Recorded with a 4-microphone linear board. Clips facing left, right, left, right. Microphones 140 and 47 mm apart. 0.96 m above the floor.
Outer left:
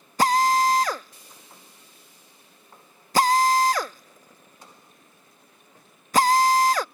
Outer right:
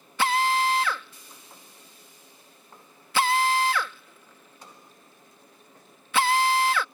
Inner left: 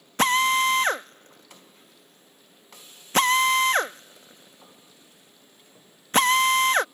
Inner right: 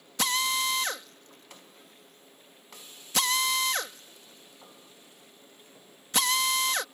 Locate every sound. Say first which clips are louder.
0.2 s a drill: outer left 4 dB, inner left 8 dB; 40° left (ahead or behind)